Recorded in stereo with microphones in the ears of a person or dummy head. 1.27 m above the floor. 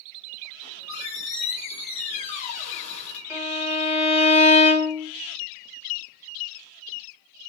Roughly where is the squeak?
Left.